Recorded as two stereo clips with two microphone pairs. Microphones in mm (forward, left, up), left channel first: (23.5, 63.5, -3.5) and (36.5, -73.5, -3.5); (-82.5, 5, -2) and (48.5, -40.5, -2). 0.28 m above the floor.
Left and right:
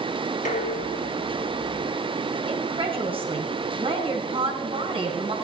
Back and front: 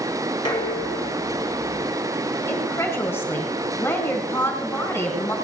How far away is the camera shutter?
No camera shutter in this recording.